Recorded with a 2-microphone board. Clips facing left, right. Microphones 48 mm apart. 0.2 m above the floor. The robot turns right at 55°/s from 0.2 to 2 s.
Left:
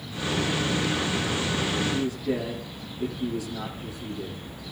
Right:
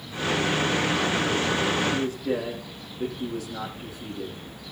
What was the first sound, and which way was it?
A man speaking, 45° right (ahead or behind).